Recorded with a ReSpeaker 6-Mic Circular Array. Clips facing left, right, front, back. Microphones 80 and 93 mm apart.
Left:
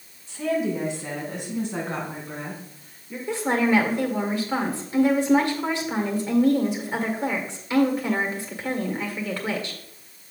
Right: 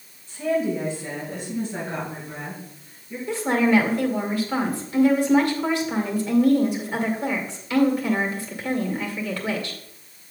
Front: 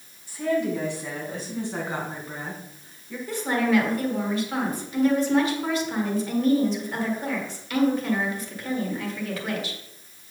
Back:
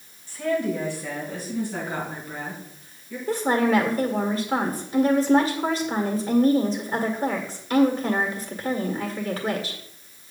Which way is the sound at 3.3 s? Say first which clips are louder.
Right 2 dB, back 2 dB; 145° left.